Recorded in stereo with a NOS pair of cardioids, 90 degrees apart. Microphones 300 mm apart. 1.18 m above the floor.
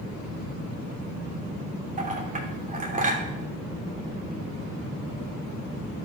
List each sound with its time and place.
2.0 s a clink: 25° right, 2.5 m